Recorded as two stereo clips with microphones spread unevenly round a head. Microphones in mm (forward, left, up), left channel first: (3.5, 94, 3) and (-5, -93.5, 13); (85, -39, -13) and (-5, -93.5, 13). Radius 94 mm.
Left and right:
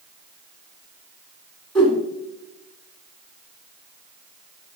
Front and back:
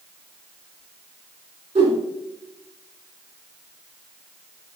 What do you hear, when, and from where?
1.8 s a whoosh: 155° left, 2.0 m